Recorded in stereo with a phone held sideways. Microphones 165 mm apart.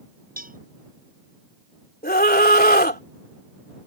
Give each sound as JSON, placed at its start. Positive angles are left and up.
{"t": 0.4, "sound": "a cowbell", "side_deg": -60}
{"t": 2.0, "sound": "a scream", "side_deg": 70}